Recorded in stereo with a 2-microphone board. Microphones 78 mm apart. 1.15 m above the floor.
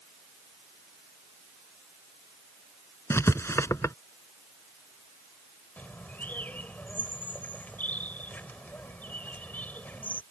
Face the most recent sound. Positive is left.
turn(degrees=20)  # may be behind; listen again after turning